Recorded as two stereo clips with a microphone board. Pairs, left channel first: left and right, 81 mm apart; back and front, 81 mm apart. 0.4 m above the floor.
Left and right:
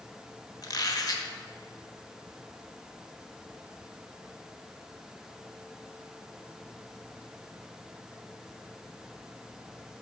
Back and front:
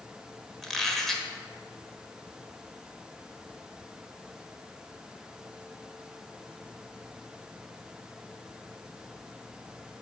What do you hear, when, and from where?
0.6 s a squeak: 95° left, 1.1 m